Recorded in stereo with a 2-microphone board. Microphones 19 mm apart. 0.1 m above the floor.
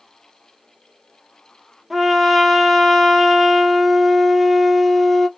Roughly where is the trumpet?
Centre.